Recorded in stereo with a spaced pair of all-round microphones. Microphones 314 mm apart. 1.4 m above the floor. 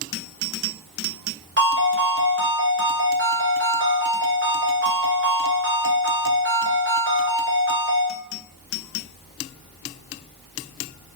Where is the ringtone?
40° right (ahead or behind), 0.8 m.